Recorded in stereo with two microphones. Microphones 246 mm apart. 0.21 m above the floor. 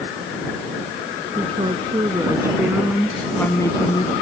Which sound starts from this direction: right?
A woman speaking, at 1.4 s.